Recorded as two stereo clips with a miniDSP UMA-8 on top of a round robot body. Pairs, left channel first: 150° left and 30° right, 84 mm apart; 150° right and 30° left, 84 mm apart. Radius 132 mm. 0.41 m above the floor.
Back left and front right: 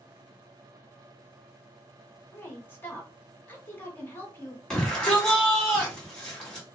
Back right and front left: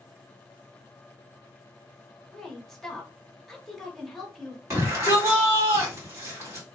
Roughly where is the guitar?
No guitar in this recording.